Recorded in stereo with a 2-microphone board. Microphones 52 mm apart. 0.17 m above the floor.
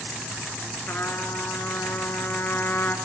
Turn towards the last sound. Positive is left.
turn(degrees=40)  # may be behind; listen again after turning